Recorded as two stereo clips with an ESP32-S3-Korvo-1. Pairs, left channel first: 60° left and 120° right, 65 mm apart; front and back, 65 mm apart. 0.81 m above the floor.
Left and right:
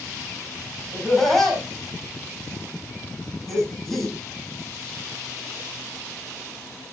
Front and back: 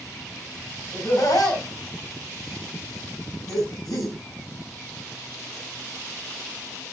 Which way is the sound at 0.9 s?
20° right.